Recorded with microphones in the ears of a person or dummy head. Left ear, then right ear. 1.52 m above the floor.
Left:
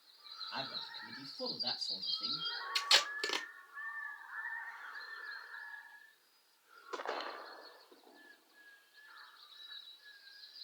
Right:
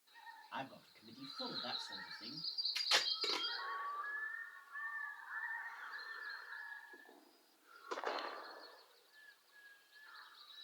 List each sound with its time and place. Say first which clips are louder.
0.5 s a man speaking: left 6 dB; 15° left (ahead or behind), 3 m
2.8 s tape being pulled: left 6 dB; 25° left (ahead or behind), 2 m